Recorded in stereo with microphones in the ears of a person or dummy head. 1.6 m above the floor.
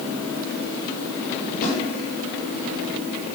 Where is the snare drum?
50° left (ahead or behind), 3.5 m.